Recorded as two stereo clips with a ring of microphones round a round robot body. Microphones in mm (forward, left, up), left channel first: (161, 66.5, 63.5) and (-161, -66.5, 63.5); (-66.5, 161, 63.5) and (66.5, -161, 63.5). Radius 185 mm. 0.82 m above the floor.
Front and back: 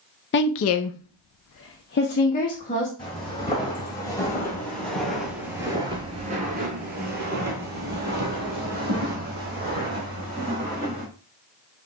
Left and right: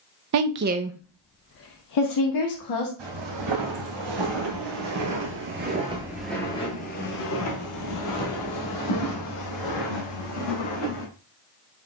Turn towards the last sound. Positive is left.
turn(degrees=135)